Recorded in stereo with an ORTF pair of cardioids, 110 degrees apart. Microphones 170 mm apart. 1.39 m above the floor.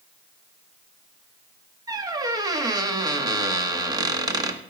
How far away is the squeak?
About 1.6 m.